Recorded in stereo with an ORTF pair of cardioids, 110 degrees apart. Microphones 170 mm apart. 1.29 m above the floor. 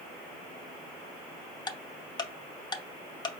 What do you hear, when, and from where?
1.7 s ticking: 25° left, 0.7 m